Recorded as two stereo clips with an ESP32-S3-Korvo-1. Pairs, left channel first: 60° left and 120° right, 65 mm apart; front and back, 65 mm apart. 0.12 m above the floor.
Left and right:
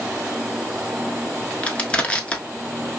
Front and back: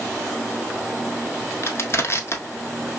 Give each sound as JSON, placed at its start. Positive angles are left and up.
{"t": 1.6, "sound": "crushing", "azimuth_deg": 0, "distance_m": 0.7}